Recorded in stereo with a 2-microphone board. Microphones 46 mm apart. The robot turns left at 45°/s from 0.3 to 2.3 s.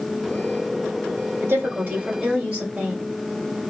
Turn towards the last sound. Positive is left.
turn(degrees=-140)